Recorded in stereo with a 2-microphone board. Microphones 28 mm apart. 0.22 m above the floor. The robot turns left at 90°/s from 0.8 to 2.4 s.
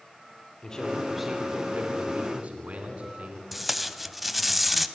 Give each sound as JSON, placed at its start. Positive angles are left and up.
{"t": 0.6, "sound": "a man speaking", "azimuth_deg": 35, "distance_m": 2.5}
{"t": 3.5, "sound": "tape being pulled", "side_deg": 0, "distance_m": 0.7}